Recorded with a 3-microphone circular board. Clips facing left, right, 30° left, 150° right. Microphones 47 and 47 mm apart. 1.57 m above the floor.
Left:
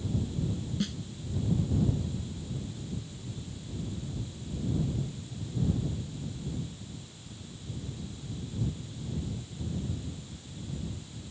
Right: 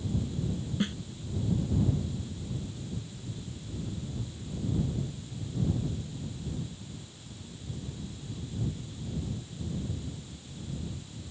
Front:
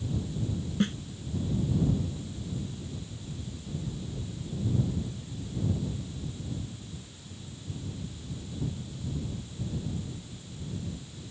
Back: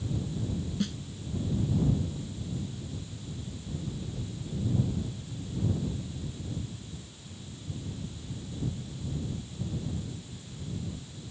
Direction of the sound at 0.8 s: 25° right.